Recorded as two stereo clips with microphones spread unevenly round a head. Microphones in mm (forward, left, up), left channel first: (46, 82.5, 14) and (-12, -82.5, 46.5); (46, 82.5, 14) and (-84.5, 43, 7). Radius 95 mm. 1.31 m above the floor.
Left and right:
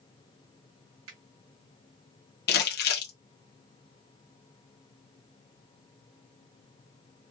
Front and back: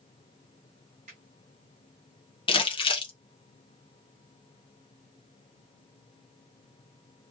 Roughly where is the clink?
I don't hear a clink.